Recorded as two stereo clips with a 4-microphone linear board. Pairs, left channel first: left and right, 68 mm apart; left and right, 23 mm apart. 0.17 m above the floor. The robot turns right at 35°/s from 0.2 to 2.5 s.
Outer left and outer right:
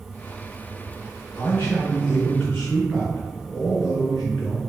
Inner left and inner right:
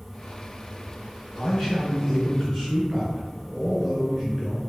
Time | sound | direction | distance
1.4 | a man speaking | 115° left | 1.7 m